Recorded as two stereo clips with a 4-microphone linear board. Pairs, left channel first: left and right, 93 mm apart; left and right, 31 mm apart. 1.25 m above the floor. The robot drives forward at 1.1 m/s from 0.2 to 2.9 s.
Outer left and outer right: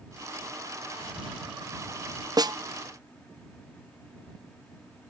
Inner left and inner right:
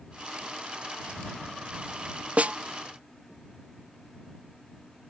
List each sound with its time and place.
2.4 s a snare drum: 45° right (ahead or behind)